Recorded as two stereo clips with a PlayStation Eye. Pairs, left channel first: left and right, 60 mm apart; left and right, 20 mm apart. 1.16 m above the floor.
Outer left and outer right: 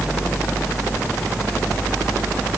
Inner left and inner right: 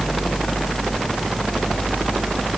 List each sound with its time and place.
Only background noise.